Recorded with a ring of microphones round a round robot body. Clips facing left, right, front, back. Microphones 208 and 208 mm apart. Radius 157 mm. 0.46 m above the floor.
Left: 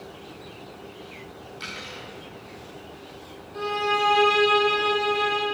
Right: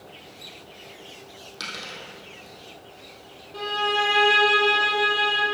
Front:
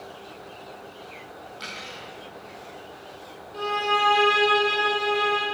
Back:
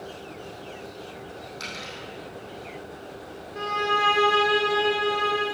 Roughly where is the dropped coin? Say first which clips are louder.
Left 1 dB, back 2 dB; right.